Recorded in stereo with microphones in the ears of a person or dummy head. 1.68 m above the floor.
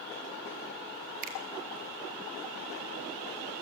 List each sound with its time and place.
1.2 s a finger snap: 45° right (ahead or behind), 2.5 m